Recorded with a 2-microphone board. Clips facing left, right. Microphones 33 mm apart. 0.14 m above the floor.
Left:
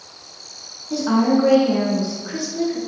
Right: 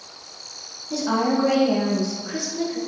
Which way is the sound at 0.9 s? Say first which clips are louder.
Left 4 dB; 10° left (ahead or behind).